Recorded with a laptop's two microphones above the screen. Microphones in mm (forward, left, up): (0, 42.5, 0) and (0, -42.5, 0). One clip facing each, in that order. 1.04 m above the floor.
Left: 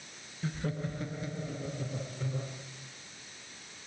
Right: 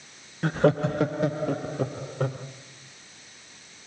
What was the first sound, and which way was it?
Laughter, 65° right (ahead or behind).